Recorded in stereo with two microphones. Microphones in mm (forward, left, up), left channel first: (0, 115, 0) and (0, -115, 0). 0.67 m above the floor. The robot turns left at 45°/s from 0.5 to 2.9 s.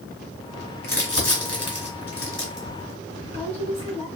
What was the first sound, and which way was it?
Crumpling, 60° left (ahead or behind).